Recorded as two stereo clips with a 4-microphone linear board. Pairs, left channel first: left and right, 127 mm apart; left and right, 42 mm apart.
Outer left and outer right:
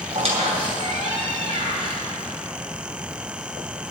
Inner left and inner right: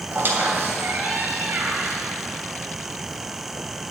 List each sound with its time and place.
0.1 s a squeak: 50° right (ahead or behind), 2.5 m